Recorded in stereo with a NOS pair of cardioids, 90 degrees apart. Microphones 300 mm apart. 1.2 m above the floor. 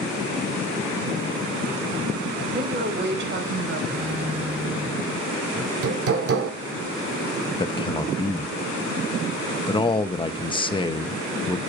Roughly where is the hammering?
Ahead right.